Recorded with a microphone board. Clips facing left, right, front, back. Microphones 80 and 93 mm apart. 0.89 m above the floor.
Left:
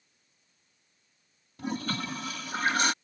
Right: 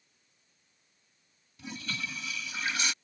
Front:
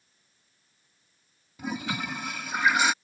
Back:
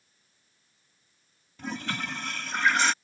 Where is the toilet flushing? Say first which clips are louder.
Left 7 dB, front 2 dB; 80° left.